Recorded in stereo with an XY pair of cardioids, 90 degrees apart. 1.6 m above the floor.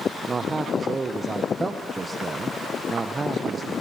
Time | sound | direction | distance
0.3 | a man speaking | 25° right | 1.4 m